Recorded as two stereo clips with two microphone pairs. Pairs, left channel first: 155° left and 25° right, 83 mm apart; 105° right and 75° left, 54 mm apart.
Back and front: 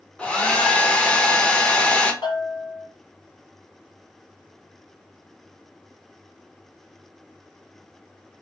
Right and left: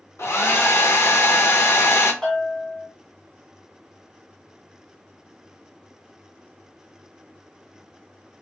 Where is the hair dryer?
130° right, 0.7 m.